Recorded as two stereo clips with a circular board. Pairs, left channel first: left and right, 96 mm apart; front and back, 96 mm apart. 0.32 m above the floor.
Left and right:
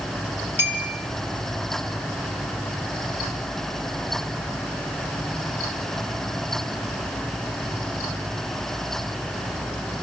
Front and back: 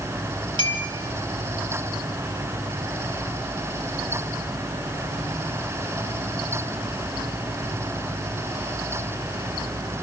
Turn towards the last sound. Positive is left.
turn(degrees=-155)